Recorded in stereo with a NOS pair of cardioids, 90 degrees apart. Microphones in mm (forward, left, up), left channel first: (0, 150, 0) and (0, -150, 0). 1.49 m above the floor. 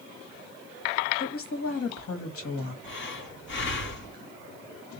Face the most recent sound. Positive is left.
turn(degrees=40)